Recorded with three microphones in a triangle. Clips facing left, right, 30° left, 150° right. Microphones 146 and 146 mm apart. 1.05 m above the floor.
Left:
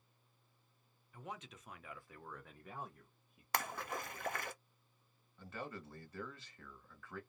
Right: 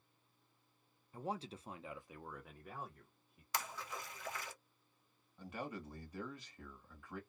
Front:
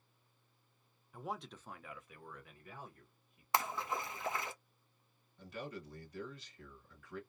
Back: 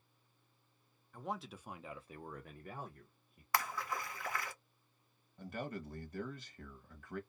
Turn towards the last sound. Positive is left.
turn(degrees=-160)